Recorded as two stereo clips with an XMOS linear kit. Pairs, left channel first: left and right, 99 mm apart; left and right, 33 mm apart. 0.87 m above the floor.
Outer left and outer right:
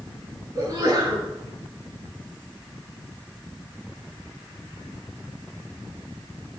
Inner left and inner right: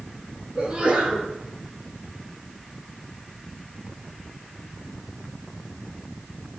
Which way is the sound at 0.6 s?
30° right (ahead or behind).